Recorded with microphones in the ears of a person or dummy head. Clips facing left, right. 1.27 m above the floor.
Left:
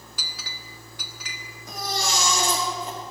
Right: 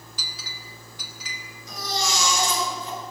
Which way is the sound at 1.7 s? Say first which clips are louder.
Even; 45° left (ahead or behind).